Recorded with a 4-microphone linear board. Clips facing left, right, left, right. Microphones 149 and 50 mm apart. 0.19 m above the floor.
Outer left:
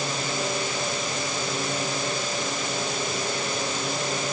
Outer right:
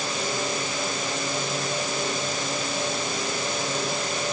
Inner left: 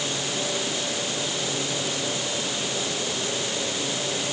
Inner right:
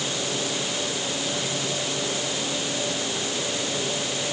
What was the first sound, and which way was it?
Only background noise.